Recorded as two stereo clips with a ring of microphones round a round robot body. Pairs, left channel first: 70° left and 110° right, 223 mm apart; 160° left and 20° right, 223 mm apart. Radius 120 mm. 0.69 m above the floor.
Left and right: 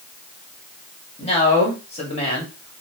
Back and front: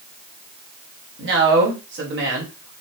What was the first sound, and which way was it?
A man speaking, 5° left.